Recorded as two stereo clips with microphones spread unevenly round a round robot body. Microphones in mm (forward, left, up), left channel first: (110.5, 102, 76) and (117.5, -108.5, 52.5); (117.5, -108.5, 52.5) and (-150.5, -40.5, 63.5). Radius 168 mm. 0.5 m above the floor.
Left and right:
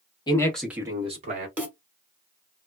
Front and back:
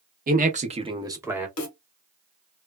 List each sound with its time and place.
0.3 s a man speaking: 150° left, 0.8 m; by 1.5 s 110° right, 1.1 m
1.6 s a snare drum: 10° right, 1.2 m